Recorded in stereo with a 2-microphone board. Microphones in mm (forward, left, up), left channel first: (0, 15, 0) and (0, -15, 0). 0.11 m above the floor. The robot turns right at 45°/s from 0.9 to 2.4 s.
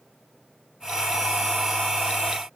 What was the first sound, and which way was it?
Only background noise.